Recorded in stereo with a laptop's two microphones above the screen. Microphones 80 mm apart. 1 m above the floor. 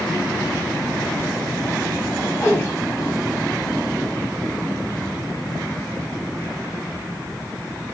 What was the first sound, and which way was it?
A whoosh, 35° left (ahead or behind).